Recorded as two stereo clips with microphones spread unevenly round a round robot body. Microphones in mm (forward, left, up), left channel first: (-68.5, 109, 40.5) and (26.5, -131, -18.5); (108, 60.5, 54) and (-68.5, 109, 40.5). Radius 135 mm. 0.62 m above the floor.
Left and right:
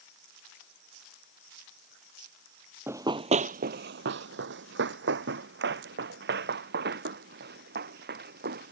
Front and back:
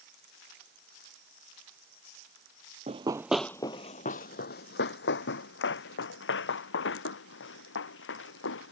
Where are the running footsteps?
165° right; by 8.7 s 10° right.